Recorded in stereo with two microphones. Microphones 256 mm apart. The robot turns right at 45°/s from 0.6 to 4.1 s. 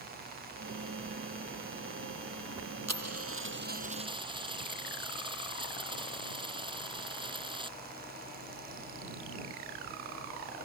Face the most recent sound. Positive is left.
turn(degrees=-20)